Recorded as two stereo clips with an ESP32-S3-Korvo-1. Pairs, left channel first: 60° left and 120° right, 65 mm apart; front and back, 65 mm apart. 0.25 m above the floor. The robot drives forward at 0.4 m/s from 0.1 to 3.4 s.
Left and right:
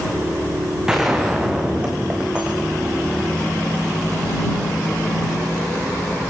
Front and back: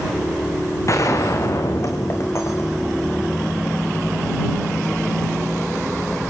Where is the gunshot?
40° right, 5 m; by 3.2 s 50° right, 4 m.